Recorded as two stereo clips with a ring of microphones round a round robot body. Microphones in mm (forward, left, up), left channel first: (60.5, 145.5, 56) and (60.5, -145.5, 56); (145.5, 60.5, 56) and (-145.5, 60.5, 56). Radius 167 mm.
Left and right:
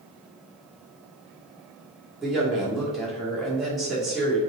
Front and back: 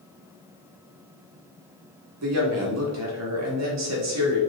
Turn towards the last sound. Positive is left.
turn(degrees=180)